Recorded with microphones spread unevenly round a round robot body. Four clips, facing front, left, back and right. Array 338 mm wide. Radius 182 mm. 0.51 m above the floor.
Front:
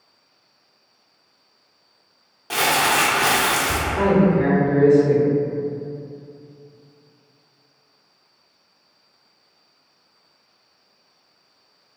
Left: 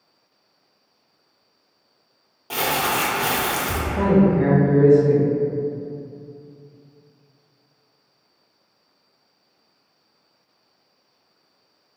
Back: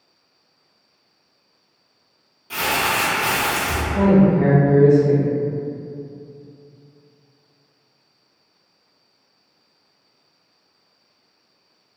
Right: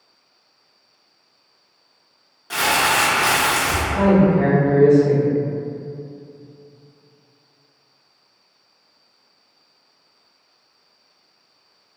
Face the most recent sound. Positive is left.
turn(degrees=165)